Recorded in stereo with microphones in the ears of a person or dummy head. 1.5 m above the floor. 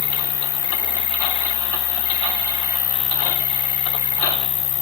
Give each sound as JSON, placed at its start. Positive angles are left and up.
{"t": 0.0, "sound": "an insect", "side_deg": 35}